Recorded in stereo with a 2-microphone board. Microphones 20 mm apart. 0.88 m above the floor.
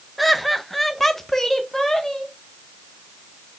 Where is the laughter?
Centre (ahead or behind), 0.9 m; by 2.3 s 20° left (ahead or behind), 1.3 m.